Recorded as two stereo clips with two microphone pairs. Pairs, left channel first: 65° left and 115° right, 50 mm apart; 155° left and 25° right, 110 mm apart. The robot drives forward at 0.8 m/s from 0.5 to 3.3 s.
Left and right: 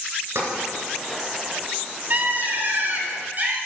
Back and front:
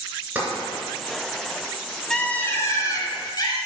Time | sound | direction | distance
0.3 | tapping | 100° right | 2.5 m
2.1 | a bird | 125° right | 0.7 m